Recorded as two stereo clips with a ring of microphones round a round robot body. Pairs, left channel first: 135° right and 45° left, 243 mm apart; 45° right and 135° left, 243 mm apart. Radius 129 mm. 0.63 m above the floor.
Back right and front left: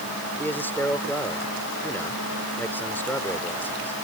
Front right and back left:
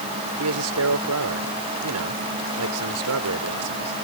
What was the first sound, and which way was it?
A man speaking, 145° left.